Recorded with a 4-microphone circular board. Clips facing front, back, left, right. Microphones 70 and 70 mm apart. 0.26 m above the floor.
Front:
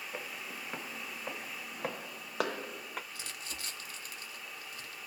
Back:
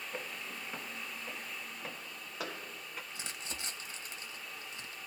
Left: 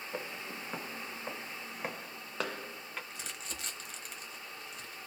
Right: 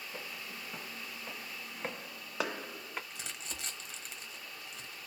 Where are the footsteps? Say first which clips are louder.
Even, left 6 dB; 80° left, 0.9 m; by 3.0 s 20° right, 1.2 m.